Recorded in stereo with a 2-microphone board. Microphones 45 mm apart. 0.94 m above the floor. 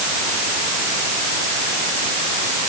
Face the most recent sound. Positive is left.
No sound to turn to.